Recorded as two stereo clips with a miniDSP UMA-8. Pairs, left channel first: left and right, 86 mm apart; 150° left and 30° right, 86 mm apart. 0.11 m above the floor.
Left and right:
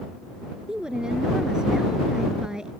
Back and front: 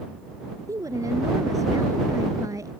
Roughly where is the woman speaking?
Ahead.